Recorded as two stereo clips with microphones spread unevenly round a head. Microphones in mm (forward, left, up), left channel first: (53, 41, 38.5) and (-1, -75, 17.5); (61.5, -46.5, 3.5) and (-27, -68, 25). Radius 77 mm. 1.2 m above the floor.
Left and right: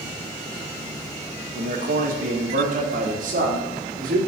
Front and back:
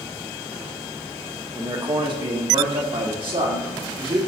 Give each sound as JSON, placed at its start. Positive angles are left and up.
{"t": 1.6, "sound": "a man speaking", "azimuth_deg": -120, "distance_m": 1.8}